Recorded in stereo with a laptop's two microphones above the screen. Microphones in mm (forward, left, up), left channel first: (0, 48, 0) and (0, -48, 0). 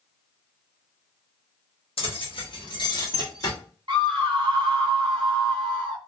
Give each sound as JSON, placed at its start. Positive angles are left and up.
{"t": 2.0, "sound": "keys jangling", "side_deg": 75, "distance_m": 1.0}
{"t": 3.9, "sound": "a scream", "side_deg": -50, "distance_m": 0.9}